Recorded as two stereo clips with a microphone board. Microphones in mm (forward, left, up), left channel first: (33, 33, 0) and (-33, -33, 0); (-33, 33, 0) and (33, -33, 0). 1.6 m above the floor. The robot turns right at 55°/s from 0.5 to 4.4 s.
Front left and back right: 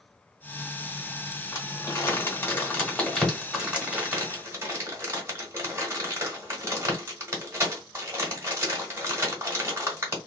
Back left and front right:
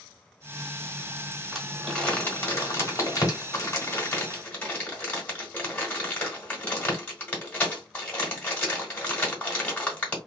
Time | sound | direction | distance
1.5 | crumpling | 40° left | 1.6 m